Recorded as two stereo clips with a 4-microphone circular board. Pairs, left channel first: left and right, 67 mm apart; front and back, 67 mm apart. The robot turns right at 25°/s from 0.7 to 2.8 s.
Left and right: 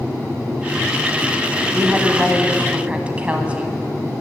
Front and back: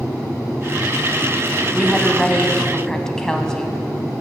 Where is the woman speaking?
90° right, 1.3 m; by 3.8 s 65° right, 1.3 m.